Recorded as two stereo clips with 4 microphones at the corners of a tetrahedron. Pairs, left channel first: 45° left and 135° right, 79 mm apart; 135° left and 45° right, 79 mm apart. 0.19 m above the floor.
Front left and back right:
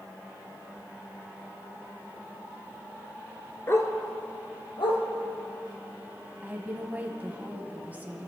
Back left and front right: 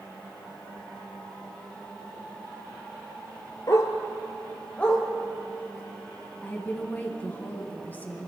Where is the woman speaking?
175° left, 1.8 m.